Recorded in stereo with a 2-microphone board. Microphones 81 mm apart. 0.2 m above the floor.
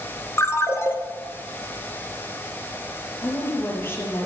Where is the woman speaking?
30° left (ahead or behind), 4.5 m.